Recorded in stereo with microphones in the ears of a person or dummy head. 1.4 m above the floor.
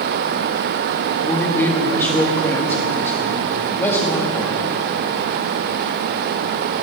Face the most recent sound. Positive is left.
turn(degrees=5)  # may be behind; listen again after turning